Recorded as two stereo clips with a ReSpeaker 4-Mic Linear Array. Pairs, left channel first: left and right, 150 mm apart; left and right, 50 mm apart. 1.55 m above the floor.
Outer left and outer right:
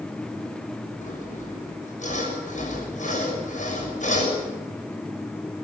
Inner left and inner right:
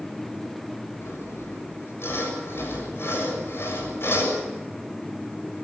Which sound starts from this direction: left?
Sawing, at 1.0 s.